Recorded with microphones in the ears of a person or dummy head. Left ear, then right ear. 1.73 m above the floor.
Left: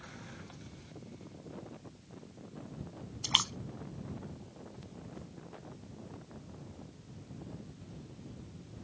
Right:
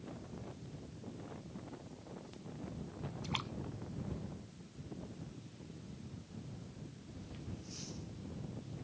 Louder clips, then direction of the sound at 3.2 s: Left 13 dB; 80° left.